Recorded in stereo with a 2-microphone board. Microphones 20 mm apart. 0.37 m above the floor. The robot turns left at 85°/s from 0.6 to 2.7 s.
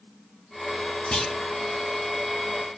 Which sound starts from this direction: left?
A clunk, at 1.1 s.